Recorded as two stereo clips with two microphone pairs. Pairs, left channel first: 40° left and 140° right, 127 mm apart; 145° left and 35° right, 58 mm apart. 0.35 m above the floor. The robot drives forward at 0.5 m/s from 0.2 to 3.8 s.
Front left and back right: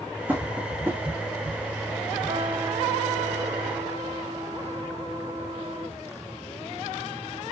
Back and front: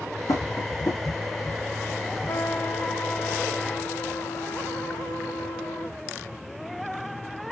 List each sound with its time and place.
0.3 s tapping: 140° left, 5.5 m; by 1.0 s 145° left, 5.5 m
2.3 s a trumpet: 175° left, 0.5 m; by 6.0 s straight behind, 1.3 m